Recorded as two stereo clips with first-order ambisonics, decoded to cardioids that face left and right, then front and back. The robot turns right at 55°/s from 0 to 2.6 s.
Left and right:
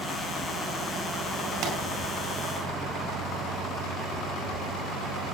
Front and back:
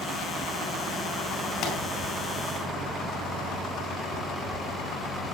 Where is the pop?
60° right, 4.5 m; by 1.8 s 50° right, 4.5 m.